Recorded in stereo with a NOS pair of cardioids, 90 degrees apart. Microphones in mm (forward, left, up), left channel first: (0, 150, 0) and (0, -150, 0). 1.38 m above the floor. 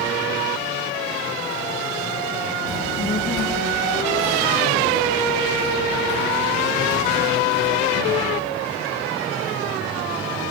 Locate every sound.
2.7 s a child speaking: 25° left, 0.9 m; by 8.5 s 70° left, 8 m